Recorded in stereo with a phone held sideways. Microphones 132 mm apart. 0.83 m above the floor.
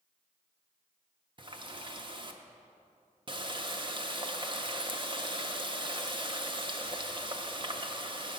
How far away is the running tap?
About 0.6 m.